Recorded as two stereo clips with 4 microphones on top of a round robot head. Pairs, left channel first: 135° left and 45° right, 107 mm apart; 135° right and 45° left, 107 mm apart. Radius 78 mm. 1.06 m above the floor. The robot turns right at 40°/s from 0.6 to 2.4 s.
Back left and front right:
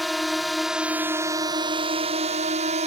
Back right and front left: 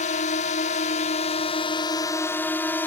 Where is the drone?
135° right; by 2.9 s 60° right.